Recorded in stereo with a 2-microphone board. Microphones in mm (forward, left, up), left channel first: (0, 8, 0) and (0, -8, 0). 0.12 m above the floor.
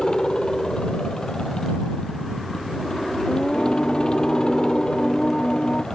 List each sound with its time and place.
0.0 s a helicopter: 50° left (ahead or behind)
3.3 s singing: 55° left (ahead or behind)